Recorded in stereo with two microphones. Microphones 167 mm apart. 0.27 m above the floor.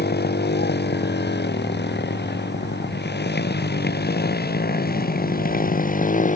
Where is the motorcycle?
75° left (ahead or behind); by 6.4 s 50° left (ahead or behind).